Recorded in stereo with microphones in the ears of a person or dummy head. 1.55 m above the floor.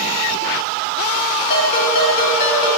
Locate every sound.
1.5 s a ringtone: 55° left (ahead or behind), 1.8 m